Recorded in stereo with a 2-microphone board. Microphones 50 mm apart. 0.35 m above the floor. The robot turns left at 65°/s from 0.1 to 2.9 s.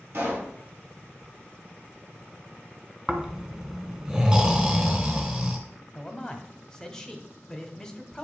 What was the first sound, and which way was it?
A pop, 50° right (ahead or behind).